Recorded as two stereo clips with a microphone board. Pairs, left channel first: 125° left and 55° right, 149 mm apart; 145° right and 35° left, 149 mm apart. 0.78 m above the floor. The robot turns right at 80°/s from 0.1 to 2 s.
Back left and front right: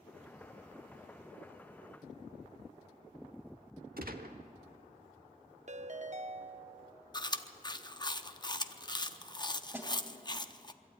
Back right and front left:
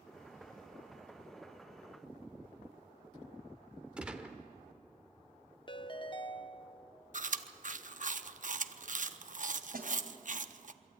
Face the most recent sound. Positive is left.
turn(degrees=20)